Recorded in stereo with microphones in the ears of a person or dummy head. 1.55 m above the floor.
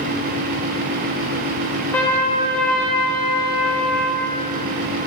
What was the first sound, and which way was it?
A trumpet, 5° left (ahead or behind).